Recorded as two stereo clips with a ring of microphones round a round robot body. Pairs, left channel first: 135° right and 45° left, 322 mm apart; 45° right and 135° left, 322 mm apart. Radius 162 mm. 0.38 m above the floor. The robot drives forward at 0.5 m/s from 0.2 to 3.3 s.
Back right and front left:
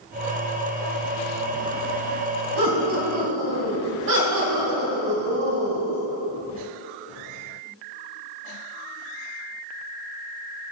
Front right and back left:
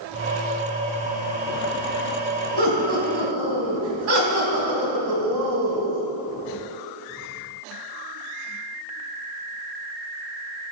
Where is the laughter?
85° left, 3 m; by 6.0 s 95° left, 3 m.